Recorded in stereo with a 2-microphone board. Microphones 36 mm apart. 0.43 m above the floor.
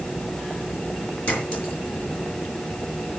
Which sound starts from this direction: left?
A clink, at 1.3 s.